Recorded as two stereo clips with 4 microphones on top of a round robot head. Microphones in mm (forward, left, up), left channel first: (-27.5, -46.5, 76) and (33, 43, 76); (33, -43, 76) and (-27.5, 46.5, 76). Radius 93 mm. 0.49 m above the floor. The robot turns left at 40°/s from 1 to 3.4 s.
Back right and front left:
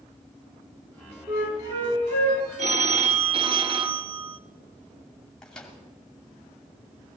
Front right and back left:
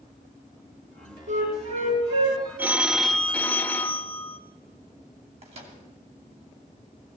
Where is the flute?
125° left, 5.5 m; by 2.4 s 80° left, 5.5 m.